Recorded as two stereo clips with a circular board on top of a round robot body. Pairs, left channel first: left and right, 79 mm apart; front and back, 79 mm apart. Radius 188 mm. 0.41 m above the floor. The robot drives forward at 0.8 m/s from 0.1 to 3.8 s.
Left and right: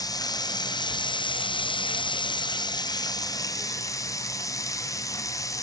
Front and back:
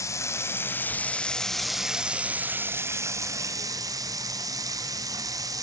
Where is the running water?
50° left, 2 m; by 5.6 s 140° left, 2.5 m.